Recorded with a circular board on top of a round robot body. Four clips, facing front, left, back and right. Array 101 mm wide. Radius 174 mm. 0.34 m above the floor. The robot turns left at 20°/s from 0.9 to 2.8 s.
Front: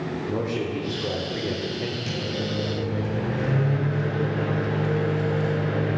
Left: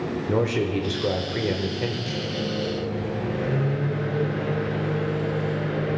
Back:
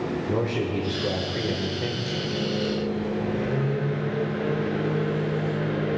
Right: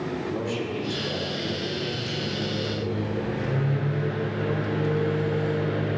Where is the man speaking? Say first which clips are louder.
Left 5 dB, even; 100° left, 1.7 m; by 2.0 s 75° left, 1.7 m.